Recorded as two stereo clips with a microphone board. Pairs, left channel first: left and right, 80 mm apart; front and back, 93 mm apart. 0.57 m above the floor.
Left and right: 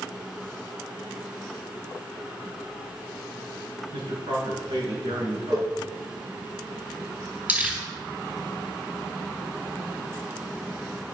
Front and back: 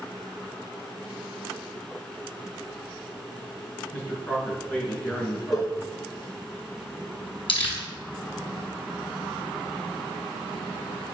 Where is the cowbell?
50° right, 4.5 m.